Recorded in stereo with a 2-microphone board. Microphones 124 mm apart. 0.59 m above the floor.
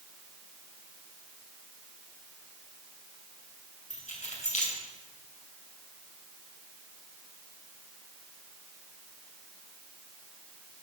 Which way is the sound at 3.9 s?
75° left (ahead or behind).